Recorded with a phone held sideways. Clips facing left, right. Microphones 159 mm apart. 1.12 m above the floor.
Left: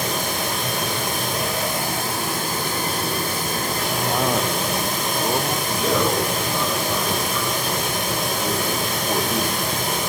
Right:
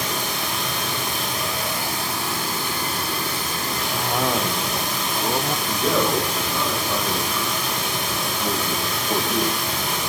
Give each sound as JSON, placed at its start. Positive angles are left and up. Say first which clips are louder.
{"t": 0.0, "sound": "running water", "louder": "left 3 dB", "side_deg": 50, "distance_m": 1.9}
{"t": 3.9, "sound": "a cough", "louder": "left 1 dB", "side_deg": 5, "distance_m": 0.6}
{"t": 5.7, "sound": "a man speaking", "louder": "even", "side_deg": 15, "distance_m": 6.5}